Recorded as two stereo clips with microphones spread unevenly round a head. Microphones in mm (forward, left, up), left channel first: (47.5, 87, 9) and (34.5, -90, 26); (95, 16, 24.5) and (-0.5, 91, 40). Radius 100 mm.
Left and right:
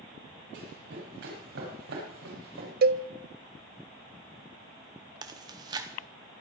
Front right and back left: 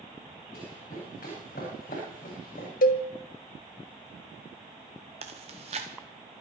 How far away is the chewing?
About 0.9 m.